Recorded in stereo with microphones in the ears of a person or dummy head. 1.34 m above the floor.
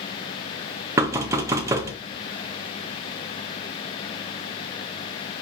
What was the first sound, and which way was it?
Knocking, 15° right (ahead or behind).